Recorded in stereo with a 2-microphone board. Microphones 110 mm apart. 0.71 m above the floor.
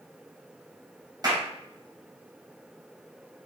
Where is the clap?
35° right (ahead or behind), 2.5 m.